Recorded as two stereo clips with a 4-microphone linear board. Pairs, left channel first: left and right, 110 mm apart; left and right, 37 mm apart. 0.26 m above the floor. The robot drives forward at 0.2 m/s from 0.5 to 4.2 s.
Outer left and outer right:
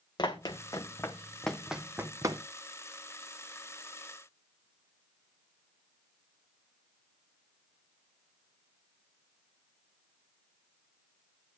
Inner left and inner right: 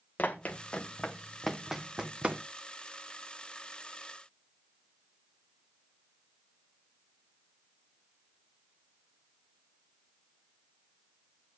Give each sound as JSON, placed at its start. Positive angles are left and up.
{"t": 0.2, "sound": "running footsteps", "side_deg": 40, "distance_m": 1.3}